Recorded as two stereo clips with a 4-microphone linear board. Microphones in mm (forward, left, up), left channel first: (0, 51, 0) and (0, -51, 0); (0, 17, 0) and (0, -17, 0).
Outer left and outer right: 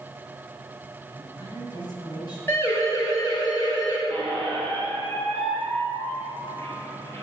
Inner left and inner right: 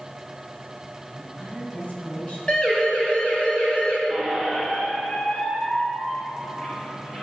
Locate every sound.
1.1 s a woman speaking: 40° left (ahead or behind), 5.5 m
2.5 s a siren: 25° left (ahead or behind), 3.5 m; by 4.0 s 45° left (ahead or behind), 3.5 m
4.1 s a squeak: 25° left (ahead or behind), 5 m